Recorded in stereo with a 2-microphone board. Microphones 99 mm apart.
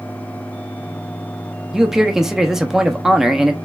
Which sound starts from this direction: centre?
A man speaking, at 1.7 s.